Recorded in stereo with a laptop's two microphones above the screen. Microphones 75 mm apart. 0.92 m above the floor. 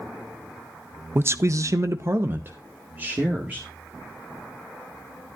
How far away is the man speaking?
About 0.5 m.